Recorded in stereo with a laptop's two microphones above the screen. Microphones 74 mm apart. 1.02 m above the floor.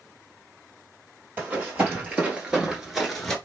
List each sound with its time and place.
1.4 s running footsteps: 25° right (ahead or behind), 1.6 m; by 3.4 s 5° left (ahead or behind), 1.0 m